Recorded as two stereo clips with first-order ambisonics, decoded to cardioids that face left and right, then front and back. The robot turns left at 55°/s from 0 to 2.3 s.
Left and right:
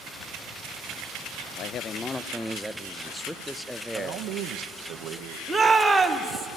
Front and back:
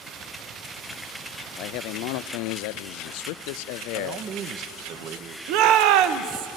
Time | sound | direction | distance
1.6 | a man speaking | 40° left | 0.5 m
3.9 | a man speaking | 130° right | 1.0 m
5.5 | a shout | 175° right | 1.2 m